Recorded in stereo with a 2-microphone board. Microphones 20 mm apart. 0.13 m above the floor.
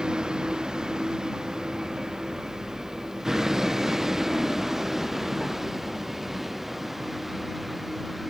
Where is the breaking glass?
No breaking glass in this recording.